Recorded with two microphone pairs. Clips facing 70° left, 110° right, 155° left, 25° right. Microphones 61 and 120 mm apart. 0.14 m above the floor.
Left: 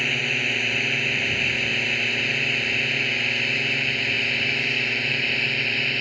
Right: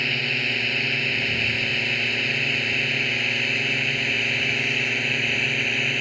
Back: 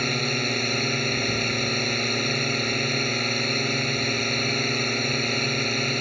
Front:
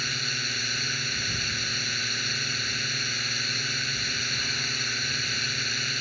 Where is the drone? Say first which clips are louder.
Left 1 dB, back 10 dB; 155° left; by 6.0 s 165° left.